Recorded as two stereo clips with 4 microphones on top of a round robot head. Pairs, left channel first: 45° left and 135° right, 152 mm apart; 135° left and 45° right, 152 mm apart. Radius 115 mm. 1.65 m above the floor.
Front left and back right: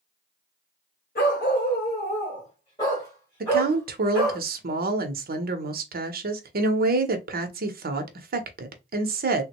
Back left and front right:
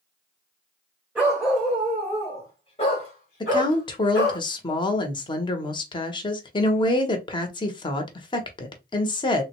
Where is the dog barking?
35° left, 1.6 m; by 4.4 s 135° left, 1.9 m.